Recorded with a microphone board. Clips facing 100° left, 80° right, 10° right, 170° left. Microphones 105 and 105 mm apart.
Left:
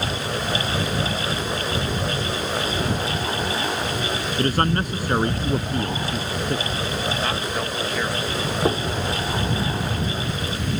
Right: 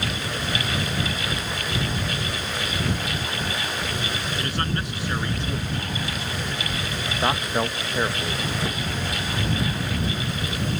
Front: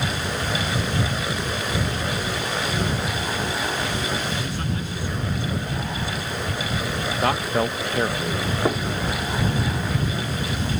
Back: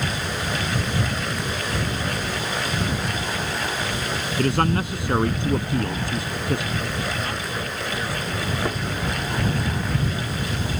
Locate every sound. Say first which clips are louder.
4.4 s a man speaking: left 9 dB, back 8 dB; 145° left
7.2 s a man speaking: right 2 dB, front 7 dB; 20° right
8.7 s knocking: left 8 dB, front 4 dB; 60° left